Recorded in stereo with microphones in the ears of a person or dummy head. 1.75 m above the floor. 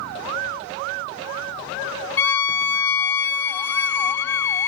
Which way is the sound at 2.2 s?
15° left (ahead or behind).